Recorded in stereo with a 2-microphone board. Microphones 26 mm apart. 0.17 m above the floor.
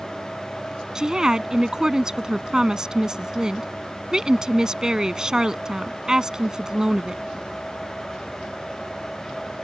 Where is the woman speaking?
25° right (ahead or behind).